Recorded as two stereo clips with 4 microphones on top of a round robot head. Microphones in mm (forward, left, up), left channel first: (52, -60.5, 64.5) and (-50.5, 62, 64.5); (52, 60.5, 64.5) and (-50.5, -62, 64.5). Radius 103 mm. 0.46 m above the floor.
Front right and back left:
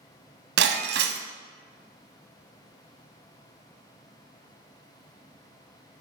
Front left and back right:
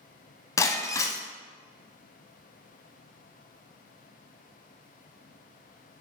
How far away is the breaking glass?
About 0.9 m.